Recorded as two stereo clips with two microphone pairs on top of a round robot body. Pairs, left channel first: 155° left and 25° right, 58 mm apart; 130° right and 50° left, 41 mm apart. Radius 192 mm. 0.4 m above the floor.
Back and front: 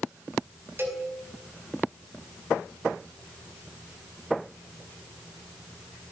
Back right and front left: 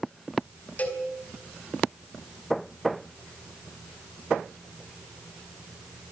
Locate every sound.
0.8 s a cowbell: 80° right, 5.5 m